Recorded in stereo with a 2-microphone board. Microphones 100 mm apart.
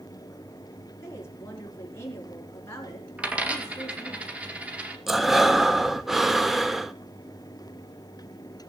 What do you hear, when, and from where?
1.0 s a woman speaking: 30° left (ahead or behind), 5 m
3.2 s a dropped coin: 15° right (ahead or behind), 1.9 m
5.1 s breathing: 5° right (ahead or behind), 0.7 m